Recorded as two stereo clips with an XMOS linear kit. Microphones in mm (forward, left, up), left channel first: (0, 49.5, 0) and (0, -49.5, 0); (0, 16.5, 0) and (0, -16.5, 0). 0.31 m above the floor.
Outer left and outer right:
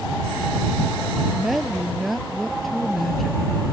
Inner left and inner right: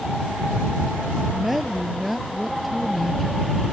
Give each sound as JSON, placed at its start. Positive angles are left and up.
{"t": 1.3, "sound": "a woman speaking", "side_deg": 0}